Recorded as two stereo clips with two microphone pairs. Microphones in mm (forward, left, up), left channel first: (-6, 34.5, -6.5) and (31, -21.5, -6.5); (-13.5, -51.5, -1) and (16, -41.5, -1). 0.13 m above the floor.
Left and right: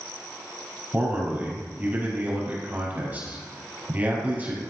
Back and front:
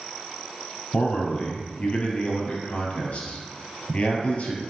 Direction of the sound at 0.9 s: 120° right.